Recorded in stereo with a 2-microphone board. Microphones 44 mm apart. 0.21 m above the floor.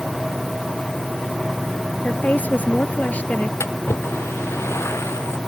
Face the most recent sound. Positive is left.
turn(degrees=80)